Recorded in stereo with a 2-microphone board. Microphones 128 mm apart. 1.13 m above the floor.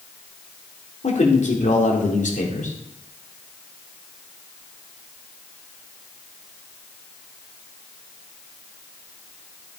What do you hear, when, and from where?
1.0 s a man speaking: 70° left (ahead or behind), 3 m; by 2.8 s 85° left, 3 m